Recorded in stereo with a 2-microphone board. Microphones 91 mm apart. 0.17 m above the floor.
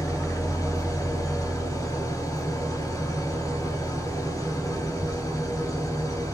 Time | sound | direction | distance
0.0 | an engine running | 40° left (ahead or behind) | 2 m